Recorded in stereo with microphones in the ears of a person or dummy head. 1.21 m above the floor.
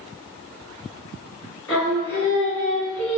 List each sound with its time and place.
1.7 s singing: 20° left (ahead or behind), 1.8 m